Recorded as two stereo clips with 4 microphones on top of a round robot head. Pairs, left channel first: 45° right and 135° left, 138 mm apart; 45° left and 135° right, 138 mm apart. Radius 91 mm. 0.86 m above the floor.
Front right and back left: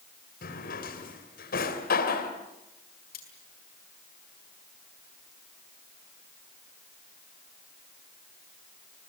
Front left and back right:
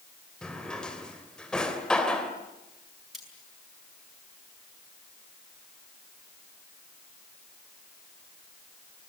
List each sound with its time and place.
0.4 s a drawer: 40° right, 2.5 m
3.1 s cutlery clinking: 45° right, 7 m